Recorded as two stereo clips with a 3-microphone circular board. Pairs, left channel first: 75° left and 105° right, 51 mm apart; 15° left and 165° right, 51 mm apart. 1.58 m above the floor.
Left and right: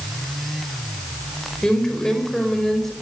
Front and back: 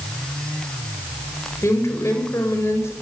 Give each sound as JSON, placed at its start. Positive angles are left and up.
{"t": 1.6, "sound": "a woman speaking", "azimuth_deg": -5, "distance_m": 5.5}